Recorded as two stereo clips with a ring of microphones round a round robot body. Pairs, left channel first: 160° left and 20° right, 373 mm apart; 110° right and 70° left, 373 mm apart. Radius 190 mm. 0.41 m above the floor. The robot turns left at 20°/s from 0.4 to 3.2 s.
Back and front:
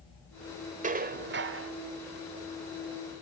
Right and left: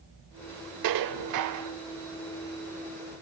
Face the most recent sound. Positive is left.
turn(degrees=0)